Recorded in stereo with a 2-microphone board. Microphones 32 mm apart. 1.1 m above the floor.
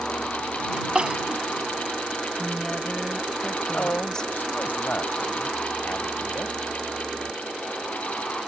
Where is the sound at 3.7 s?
65° left (ahead or behind).